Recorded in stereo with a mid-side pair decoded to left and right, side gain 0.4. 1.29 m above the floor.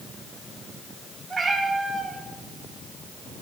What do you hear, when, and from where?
1.3 s a cat meowing: 35° right, 3 m